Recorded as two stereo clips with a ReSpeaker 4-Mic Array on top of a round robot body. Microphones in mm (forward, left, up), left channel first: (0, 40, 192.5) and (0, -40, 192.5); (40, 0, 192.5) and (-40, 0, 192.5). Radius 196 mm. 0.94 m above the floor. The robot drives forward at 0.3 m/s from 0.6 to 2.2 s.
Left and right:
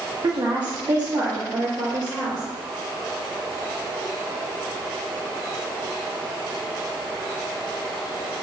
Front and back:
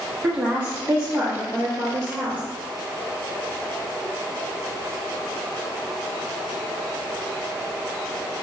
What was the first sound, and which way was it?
A woman speaking, 120° right.